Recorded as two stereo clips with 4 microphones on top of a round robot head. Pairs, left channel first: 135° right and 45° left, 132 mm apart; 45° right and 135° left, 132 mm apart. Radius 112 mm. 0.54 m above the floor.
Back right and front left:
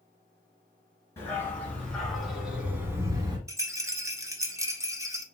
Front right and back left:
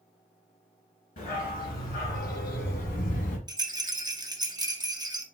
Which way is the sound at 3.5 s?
95° left.